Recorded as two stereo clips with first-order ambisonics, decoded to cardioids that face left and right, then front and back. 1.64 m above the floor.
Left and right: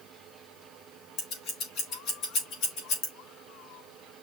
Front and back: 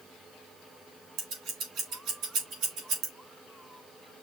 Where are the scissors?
135° left, 4 m.